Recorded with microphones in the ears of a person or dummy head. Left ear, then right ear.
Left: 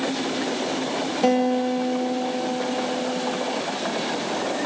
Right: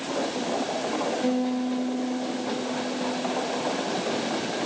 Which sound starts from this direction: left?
A guitar, at 1.2 s.